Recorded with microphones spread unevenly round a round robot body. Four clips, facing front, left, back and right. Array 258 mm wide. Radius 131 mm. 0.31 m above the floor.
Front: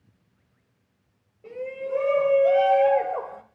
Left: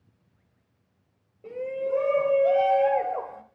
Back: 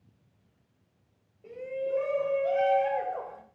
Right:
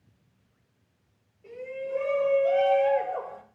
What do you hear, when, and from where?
1.4 s a shout: 75° left, 1.8 m; by 3.4 s 10° right, 1.4 m